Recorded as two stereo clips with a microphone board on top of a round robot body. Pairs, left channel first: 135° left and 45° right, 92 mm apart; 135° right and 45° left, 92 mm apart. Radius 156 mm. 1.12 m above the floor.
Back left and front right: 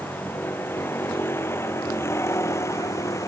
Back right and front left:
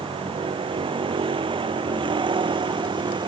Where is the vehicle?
65° left; by 3.3 s 80° left.